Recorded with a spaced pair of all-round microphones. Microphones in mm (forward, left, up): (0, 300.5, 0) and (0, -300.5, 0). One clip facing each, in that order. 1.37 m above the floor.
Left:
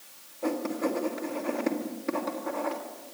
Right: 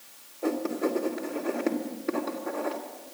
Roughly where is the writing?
Left.